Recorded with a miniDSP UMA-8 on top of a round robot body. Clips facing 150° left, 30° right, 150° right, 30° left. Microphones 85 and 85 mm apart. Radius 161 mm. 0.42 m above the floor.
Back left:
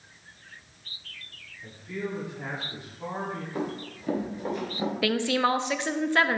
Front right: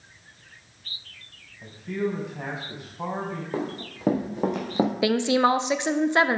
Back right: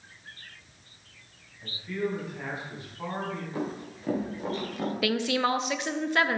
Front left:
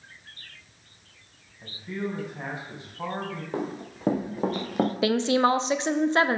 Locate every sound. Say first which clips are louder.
1.6 s a man speaking: front right 6 dB, back right 1 dB; 35° right, 4 m
3.5 s running footsteps: front right 2 dB, front left 2 dB; 5° right, 3.5 m; by 4.9 s 10° right, 1.6 m
5.0 s a woman speaking: front right 3 dB, front left 4 dB; 15° left, 0.9 m